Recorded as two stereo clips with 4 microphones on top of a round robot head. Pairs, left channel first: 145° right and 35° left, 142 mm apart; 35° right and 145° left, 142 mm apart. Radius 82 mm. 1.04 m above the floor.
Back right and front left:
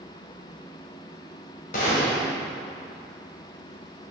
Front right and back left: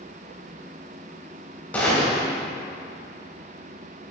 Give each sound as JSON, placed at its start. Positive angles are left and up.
{"t": 1.7, "sound": "a gunshot", "azimuth_deg": -115, "distance_m": 1.8}